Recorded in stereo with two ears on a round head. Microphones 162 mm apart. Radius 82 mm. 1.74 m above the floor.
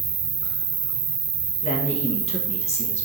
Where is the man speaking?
35° left (ahead or behind), 2.0 m.